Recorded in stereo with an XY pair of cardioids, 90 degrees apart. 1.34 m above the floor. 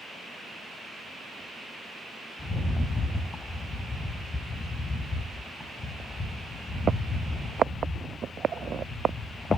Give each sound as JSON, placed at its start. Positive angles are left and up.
{"t": 2.4, "sound": "a rattle", "azimuth_deg": 35, "distance_m": 4.0}